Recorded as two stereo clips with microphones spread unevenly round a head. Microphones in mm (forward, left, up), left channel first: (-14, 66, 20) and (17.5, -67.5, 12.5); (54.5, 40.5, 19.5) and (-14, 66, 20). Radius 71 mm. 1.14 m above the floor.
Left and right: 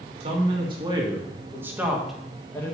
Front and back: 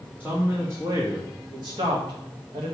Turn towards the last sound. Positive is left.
turn(degrees=175)